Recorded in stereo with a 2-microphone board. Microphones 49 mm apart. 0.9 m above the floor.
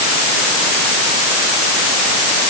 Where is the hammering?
I don't hear hammering.